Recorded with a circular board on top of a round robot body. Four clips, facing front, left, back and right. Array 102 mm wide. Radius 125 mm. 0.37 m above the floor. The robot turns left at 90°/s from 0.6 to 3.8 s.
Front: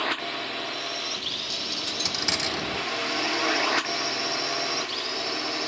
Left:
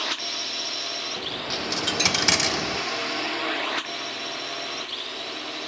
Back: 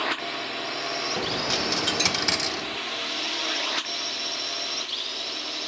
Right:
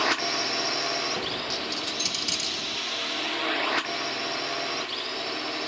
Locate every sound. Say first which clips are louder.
0.0 s a drone: right 7 dB, even; 95° right; by 5.7 s 20° right
1.2 s a dropped coin: even, back 9 dB; 160° right; by 2.9 s 45° left